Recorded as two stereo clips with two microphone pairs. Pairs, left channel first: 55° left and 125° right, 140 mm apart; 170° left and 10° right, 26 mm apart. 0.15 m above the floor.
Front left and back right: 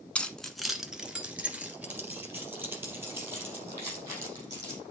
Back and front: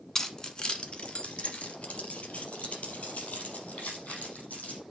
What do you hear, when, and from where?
0.1 s keys jangling: 125° left, 1.2 m; by 4.8 s 165° left, 5 m